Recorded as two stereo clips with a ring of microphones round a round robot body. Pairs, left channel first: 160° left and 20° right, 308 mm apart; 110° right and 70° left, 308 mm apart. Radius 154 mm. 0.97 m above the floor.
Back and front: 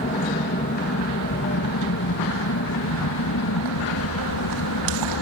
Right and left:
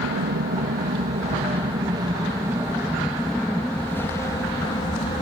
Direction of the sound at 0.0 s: 105° left.